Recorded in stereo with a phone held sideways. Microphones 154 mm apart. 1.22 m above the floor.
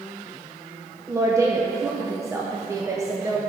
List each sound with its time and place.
1.1 s a woman speaking: 20° right (ahead or behind), 0.8 m